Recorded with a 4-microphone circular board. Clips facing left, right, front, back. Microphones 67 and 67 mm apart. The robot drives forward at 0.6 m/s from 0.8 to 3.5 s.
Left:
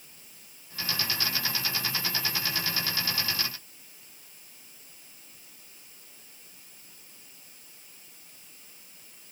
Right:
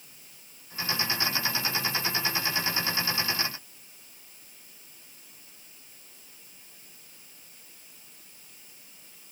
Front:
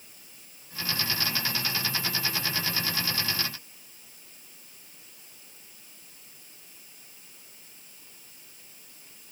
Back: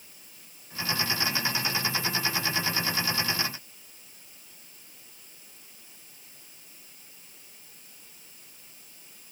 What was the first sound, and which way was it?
Only background noise.